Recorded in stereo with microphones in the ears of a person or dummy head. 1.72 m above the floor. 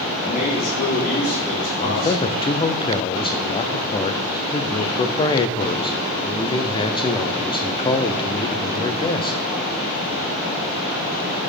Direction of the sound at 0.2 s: 45° left (ahead or behind).